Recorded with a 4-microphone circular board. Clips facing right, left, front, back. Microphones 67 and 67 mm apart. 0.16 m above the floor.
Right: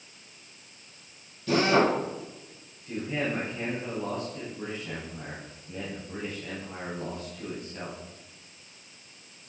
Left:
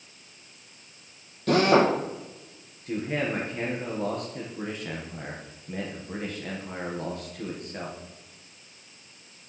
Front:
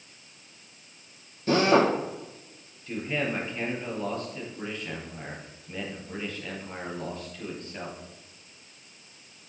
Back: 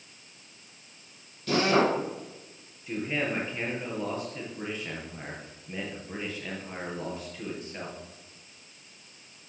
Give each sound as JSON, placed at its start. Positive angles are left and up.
{"t": 1.5, "sound": "a drill", "azimuth_deg": 60, "distance_m": 4.0}
{"t": 2.9, "sound": "a man speaking", "azimuth_deg": 100, "distance_m": 4.0}